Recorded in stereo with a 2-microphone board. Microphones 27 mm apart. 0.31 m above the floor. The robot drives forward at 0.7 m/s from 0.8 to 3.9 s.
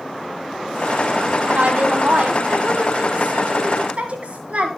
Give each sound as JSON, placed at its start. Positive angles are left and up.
{"t": 1.5, "sound": "a woman speaking", "side_deg": -55, "distance_m": 1.9}